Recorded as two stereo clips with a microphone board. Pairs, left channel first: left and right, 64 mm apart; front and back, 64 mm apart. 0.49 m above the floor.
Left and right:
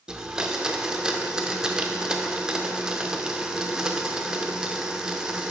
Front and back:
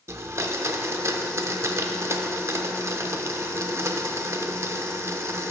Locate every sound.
0.1 s a blender: 160° right, 0.5 m